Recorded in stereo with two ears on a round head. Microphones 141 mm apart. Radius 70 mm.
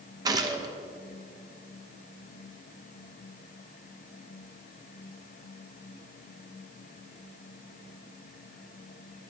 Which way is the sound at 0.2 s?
25° right (ahead or behind).